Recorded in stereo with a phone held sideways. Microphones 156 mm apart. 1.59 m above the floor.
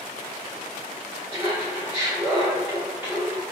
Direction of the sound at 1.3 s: 15° right (ahead or behind).